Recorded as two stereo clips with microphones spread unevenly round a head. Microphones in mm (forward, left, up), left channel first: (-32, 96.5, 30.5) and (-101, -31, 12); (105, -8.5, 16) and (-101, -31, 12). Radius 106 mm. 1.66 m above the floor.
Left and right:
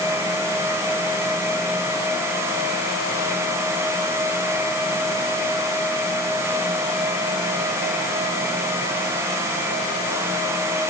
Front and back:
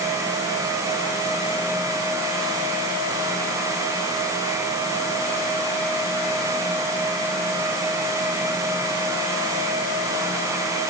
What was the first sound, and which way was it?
Only background noise.